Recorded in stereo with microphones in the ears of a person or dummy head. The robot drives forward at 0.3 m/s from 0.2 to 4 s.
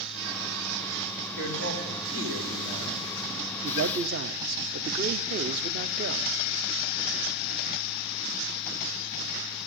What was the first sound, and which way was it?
A man speaking, 75° right (ahead or behind).